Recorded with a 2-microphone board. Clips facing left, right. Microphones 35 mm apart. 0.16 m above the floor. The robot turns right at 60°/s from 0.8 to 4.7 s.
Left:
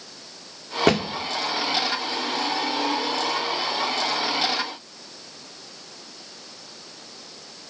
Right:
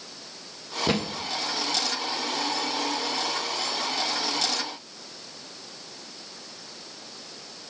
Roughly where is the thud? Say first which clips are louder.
Left 6 dB; left.